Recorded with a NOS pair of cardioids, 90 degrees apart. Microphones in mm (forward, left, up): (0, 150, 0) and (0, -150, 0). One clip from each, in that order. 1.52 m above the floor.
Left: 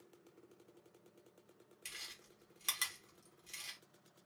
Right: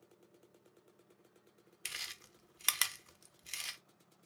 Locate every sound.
1.9 s chewing: 45° right, 0.5 m